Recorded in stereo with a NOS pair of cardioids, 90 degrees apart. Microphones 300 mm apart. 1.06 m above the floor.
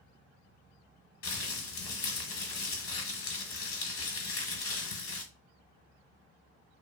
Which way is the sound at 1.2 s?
45° left.